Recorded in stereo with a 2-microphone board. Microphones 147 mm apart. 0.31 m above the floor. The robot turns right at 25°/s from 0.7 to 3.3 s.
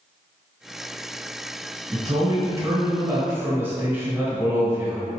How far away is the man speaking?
About 1.1 m.